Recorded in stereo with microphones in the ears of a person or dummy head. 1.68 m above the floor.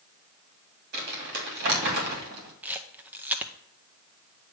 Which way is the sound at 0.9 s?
55° right (ahead or behind).